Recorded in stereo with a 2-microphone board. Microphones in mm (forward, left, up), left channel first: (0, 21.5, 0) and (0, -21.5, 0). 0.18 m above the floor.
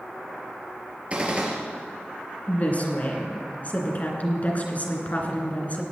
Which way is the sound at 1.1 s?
30° right (ahead or behind).